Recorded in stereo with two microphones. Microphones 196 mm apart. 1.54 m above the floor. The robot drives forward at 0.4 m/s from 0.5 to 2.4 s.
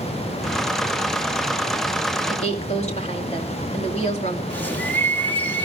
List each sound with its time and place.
2.3 s a woman speaking: 35° left (ahead or behind), 2.5 m
4.5 s a bird: 10° left (ahead or behind), 3 m